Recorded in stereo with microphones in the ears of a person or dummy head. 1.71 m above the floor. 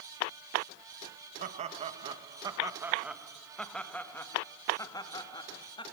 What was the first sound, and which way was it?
Laughter, 40° right (ahead or behind).